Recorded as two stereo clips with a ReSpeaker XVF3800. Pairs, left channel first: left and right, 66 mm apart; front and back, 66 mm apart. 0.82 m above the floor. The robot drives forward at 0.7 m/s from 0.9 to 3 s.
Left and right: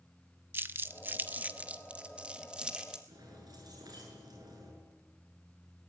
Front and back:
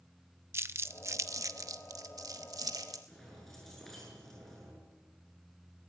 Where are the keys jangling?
85° right, 8 m.